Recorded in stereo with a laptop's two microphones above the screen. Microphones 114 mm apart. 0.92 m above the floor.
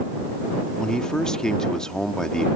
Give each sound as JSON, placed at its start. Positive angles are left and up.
{"t": 0.8, "sound": "a man speaking", "side_deg": 5}